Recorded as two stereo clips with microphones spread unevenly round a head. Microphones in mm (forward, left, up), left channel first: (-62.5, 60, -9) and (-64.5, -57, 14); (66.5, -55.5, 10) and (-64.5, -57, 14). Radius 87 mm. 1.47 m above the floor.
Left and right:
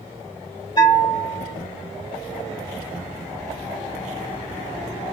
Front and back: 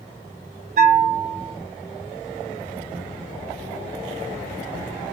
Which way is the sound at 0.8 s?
150° left.